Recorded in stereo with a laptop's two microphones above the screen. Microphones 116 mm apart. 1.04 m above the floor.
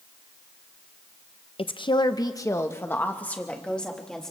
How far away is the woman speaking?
About 0.7 m.